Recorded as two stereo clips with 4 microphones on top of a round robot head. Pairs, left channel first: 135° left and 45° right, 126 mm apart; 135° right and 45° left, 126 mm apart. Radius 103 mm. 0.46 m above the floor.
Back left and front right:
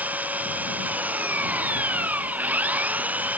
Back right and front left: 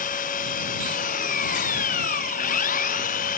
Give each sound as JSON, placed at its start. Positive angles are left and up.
{"t": 0.0, "sound": "an engine running", "azimuth_deg": -120}